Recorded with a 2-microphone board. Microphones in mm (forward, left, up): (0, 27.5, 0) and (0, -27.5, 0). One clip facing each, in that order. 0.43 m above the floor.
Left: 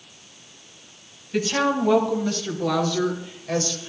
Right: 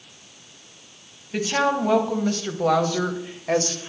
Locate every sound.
1.3 s a woman speaking: 15° right (ahead or behind), 2.5 m; by 3.9 s 40° right (ahead or behind), 1.4 m